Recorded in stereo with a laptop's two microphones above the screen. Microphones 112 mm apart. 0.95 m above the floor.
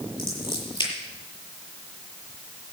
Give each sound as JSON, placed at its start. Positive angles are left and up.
{"t": 0.2, "sound": "scissors", "side_deg": 45, "distance_m": 8.0}